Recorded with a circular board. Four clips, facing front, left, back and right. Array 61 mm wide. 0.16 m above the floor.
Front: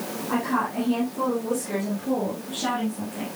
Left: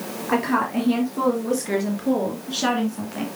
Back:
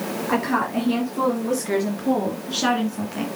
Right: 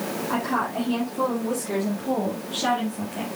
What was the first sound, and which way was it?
A woman speaking, 130° left.